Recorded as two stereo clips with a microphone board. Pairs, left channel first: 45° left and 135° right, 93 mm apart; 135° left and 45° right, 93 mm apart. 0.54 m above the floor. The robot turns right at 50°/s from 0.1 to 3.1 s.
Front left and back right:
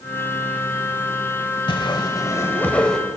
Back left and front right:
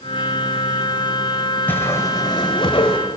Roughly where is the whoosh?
Ahead left.